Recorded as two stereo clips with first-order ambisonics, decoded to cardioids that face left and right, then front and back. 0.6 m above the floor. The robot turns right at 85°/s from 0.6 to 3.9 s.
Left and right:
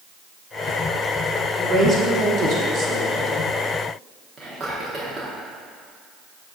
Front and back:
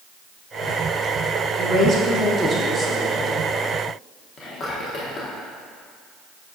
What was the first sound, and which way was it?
A woman speaking, 175° right.